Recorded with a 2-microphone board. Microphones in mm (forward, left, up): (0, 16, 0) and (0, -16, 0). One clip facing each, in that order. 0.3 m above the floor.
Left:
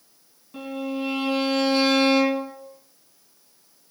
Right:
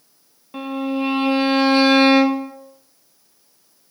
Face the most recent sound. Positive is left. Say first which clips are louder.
# right 6 dB
turn(degrees=-45)  # may be behind; listen again after turning